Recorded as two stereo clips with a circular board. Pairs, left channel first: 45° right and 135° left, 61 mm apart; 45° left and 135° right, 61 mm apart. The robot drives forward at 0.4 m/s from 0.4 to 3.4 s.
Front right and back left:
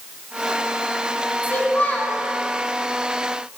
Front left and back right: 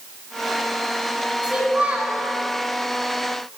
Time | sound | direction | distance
1.4 | a child speaking | 70° right | 1.0 m